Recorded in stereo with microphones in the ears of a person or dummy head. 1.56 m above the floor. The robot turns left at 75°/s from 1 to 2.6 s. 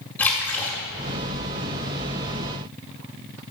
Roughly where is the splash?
Centre.